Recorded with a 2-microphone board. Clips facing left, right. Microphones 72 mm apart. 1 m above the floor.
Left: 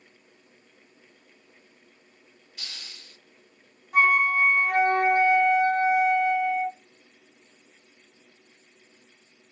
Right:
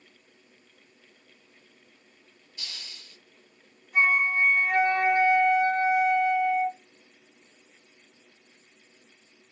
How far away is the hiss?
About 2.5 m.